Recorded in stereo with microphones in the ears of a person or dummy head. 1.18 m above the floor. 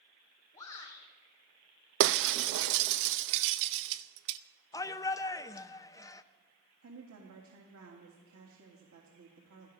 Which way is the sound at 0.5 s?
20° left (ahead or behind).